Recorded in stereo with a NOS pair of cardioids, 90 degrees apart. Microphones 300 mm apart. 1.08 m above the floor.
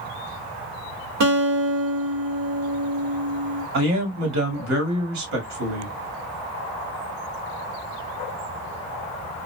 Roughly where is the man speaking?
Ahead right.